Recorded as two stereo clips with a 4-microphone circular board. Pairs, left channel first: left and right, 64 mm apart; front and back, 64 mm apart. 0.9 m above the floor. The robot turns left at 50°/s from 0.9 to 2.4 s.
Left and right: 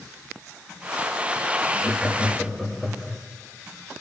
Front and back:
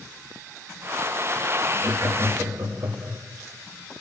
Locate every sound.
1.8 s laughter: 145° right, 1.5 m; by 3.2 s 175° right, 1.5 m